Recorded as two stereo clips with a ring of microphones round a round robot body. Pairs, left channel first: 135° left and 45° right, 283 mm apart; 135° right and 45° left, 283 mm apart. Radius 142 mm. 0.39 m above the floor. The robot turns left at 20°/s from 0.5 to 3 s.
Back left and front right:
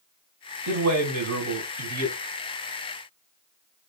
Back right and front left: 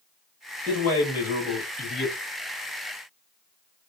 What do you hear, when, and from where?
0.7 s a man speaking: 50° right, 2 m; by 2.1 s 80° right, 2 m